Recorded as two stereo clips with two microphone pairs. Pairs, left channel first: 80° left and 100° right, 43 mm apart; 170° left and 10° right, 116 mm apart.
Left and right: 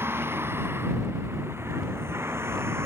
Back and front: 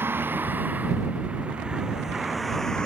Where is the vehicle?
80° right; by 2.9 s 105° right.